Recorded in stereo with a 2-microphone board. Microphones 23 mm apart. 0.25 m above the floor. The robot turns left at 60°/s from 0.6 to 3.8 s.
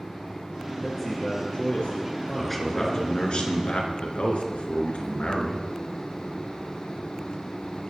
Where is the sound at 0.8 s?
175° left, 4 m; by 3.4 s 20° left, 4 m.